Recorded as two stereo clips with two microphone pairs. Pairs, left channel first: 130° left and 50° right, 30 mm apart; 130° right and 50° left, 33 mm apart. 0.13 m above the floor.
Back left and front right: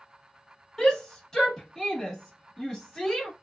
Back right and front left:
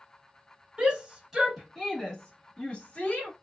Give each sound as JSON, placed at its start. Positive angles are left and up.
{"t": 0.8, "sound": "a shout", "azimuth_deg": 70, "distance_m": 1.3}